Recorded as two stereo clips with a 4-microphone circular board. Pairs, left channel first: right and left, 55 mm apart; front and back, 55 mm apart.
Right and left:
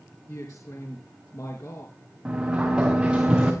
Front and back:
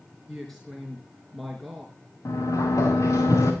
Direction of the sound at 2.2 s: 10° left.